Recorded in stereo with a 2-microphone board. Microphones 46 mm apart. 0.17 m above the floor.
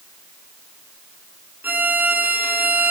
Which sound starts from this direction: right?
A violin, at 1.6 s.